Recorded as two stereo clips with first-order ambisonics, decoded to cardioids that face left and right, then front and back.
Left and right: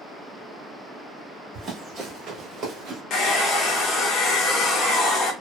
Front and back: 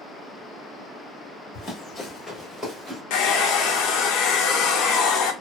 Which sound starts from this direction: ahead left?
A hair dryer, at 3.1 s.